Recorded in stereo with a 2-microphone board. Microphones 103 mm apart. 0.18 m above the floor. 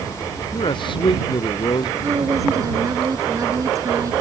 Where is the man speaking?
50° left (ahead or behind).